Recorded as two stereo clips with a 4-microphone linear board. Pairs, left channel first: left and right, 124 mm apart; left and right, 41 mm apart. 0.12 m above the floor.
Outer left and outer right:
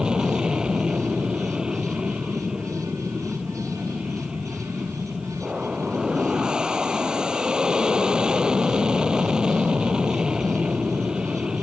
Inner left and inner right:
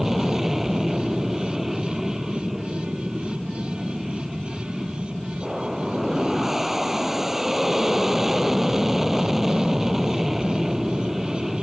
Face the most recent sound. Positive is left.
turn(degrees=-5)  # may be behind; listen again after turning